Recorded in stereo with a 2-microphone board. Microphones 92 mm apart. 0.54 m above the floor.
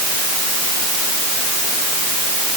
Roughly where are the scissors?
No scissors in this recording.